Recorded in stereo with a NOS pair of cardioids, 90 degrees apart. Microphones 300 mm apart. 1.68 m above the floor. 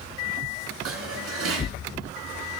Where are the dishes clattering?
60° right, 2.5 m.